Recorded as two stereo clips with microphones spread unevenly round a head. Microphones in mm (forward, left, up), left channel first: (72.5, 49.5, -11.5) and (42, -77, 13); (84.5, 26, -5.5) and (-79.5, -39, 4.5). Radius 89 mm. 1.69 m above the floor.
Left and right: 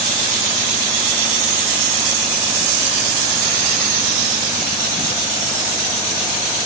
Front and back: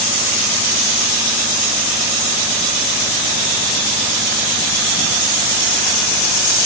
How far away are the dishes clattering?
I don't hear dishes clattering.